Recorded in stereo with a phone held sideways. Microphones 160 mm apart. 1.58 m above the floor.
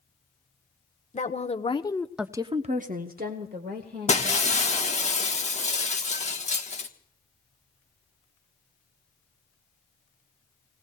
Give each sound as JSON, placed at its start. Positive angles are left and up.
{"t": 1.1, "sound": "a woman speaking", "side_deg": 50, "distance_m": 1.2}
{"t": 4.1, "sound": "breaking glass", "side_deg": 45, "distance_m": 1.3}